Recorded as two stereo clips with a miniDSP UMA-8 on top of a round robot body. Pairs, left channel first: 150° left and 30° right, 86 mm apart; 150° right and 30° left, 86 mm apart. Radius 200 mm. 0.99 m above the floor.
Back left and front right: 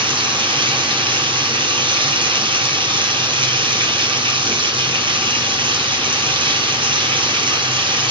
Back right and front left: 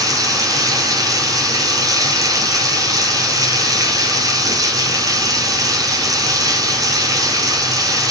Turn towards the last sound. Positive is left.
turn(degrees=-15)